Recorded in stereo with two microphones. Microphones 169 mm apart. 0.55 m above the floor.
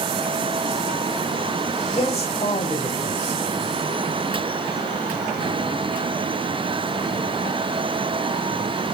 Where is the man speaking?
40° left (ahead or behind), 2.5 m.